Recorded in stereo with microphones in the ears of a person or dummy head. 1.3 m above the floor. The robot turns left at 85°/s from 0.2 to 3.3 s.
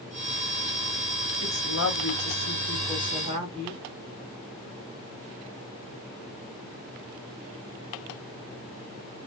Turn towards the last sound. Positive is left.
turn(degrees=-35)